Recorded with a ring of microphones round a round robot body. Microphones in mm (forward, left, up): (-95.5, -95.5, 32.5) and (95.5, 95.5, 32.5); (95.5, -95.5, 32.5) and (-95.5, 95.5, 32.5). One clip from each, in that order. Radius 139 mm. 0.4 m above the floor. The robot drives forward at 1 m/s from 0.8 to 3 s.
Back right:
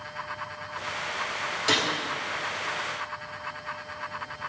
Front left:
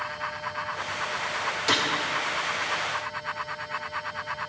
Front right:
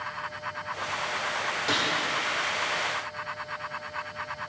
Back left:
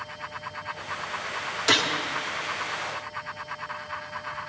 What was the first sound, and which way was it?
A gunshot, 130° left.